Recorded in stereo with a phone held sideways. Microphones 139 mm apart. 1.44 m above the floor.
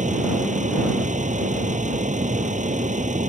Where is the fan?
60° right (ahead or behind).